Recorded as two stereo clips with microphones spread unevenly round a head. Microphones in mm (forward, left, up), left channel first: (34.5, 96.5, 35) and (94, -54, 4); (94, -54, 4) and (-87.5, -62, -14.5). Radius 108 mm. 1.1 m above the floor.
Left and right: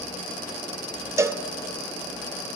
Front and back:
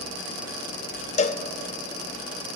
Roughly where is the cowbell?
Ahead.